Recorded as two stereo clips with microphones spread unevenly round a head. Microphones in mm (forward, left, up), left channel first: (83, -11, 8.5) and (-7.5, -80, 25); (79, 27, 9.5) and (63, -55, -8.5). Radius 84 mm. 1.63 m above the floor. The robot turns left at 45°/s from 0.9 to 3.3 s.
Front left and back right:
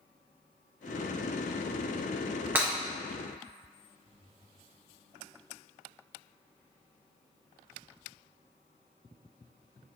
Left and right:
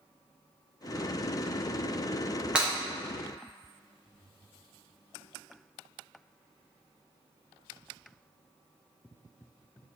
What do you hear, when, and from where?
2.5 s breaking glass: 165° left, 1.0 m; by 2.7 s 160° left, 1.0 m